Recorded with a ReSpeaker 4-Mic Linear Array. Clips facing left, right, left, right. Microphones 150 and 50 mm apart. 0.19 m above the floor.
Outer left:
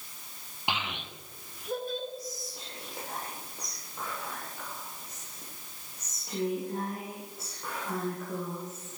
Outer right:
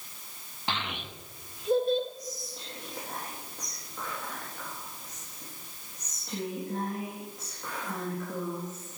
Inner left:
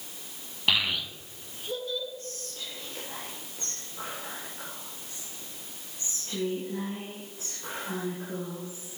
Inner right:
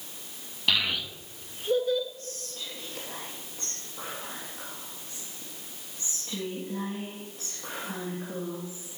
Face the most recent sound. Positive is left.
turn(degrees=10)  # may be behind; listen again after turning